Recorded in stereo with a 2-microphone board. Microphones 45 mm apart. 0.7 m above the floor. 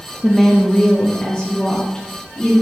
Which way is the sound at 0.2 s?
5° right (ahead or behind).